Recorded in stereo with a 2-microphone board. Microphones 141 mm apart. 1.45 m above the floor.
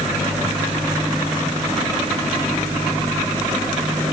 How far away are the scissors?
No scissors in this recording.